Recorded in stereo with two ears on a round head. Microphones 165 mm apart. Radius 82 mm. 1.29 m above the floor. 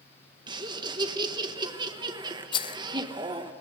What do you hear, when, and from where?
0.5 s laughter: 20° right (ahead or behind), 1.4 m
2.5 s a rattle: 25° left (ahead or behind), 0.6 m